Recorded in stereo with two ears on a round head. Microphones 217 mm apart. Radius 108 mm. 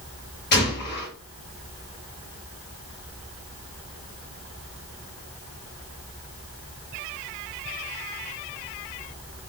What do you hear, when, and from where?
0.5 s a gunshot: 45° left (ahead or behind), 2 m